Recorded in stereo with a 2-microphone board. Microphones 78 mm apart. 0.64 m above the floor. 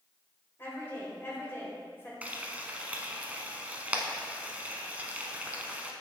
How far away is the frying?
About 0.8 m.